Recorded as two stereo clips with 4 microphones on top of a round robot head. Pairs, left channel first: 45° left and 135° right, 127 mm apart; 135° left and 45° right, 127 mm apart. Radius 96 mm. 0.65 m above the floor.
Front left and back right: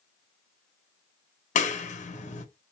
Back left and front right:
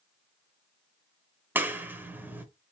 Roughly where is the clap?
Ahead left.